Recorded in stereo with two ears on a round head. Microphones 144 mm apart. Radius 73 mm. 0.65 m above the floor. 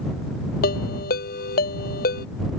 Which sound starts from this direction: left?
A ringtone, at 0.6 s.